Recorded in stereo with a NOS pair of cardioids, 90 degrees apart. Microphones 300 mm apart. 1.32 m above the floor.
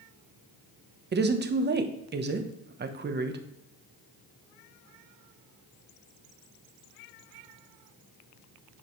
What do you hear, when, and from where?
1.1 s a woman speaking: 35° right, 1.1 m